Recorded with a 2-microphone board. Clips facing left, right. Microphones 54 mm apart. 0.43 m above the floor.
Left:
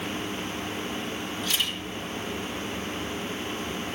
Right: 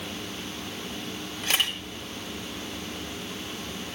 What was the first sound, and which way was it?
A camera shutter, 55° right (ahead or behind).